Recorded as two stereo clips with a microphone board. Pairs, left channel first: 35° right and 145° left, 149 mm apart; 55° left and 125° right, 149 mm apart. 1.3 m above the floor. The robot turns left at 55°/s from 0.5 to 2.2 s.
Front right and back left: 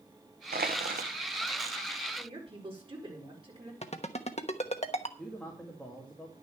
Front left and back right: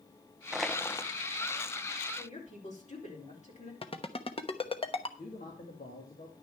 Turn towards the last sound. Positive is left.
turn(degrees=50)